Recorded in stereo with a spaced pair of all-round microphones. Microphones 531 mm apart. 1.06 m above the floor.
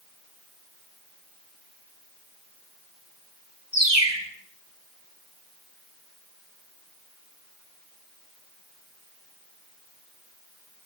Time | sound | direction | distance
3.7 | a bird | 50° right (ahead or behind) | 2.5 m